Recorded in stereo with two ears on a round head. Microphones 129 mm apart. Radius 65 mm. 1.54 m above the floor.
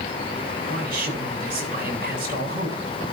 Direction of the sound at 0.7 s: 70° right (ahead or behind).